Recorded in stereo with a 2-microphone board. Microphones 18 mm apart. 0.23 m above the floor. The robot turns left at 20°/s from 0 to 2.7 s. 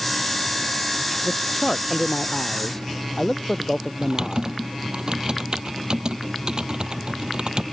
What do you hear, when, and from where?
1.2 s a man speaking: centre (ahead or behind); by 4.5 s 30° left (ahead or behind)
4.0 s typing on a keyboard: 55° right (ahead or behind)